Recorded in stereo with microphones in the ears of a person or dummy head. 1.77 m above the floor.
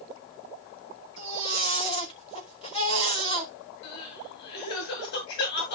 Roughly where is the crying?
Left.